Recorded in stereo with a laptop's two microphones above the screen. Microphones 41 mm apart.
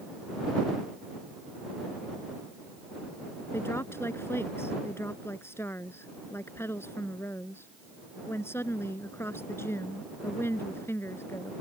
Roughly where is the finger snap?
No finger snap in this recording.